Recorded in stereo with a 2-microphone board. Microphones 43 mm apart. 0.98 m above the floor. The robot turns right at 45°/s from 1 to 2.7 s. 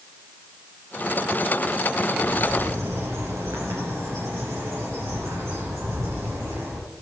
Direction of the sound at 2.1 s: 55° right (ahead or behind).